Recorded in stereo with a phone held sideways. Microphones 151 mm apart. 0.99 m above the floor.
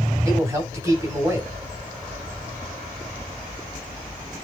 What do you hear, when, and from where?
0.2 s a man speaking: 20° right (ahead or behind), 7 m